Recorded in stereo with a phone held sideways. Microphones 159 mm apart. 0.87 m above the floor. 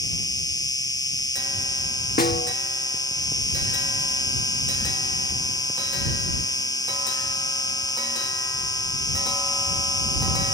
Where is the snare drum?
75° left (ahead or behind).